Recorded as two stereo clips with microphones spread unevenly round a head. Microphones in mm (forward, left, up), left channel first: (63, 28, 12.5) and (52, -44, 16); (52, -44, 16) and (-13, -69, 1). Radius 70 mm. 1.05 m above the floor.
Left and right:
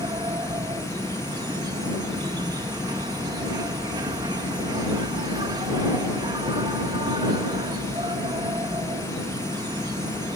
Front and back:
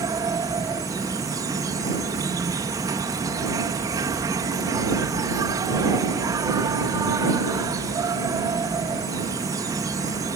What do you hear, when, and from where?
0.0 s an insect: 140° right